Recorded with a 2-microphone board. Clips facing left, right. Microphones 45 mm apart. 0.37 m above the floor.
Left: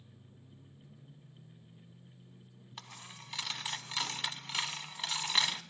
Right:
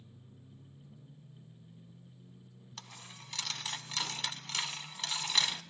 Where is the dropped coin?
10° left (ahead or behind), 0.9 m.